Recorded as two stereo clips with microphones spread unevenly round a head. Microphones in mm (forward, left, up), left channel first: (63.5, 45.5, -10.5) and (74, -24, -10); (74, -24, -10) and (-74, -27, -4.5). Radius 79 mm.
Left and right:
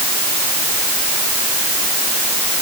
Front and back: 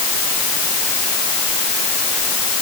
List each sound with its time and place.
Only background noise.